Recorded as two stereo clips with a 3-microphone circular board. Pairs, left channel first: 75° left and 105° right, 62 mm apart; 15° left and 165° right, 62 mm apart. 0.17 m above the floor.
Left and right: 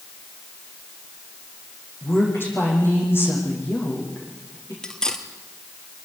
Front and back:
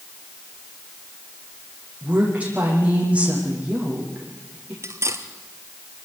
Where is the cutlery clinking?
155° left, 2 m.